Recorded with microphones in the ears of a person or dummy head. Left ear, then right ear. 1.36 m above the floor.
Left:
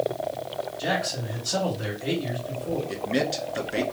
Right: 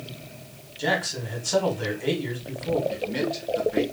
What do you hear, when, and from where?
0.8 s a man speaking: 60° right (ahead or behind), 1.6 m
2.9 s a man speaking: 85° left, 1.4 m